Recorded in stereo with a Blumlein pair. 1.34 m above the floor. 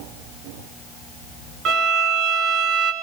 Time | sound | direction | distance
1.6 | a violin | 30° right | 1.1 m